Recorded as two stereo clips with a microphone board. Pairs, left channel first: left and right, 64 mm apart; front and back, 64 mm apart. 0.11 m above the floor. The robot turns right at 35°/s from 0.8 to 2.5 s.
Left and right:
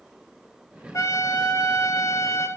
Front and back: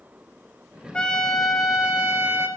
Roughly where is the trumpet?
Left.